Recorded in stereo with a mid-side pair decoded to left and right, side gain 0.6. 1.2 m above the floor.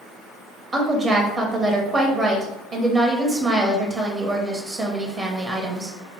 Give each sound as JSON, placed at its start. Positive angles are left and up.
{"t": 0.7, "sound": "a woman speaking", "azimuth_deg": -30, "distance_m": 0.7}